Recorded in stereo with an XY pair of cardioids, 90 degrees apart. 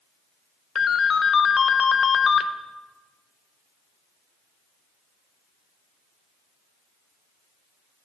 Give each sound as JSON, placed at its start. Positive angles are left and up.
{"t": 0.8, "sound": "a ringtone", "azimuth_deg": 50, "distance_m": 0.7}